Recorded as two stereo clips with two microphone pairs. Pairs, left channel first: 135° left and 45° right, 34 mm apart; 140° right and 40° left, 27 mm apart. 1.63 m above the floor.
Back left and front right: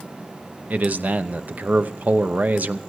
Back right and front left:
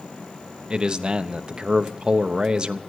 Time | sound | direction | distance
0.7 | a man speaking | 10° right | 0.8 m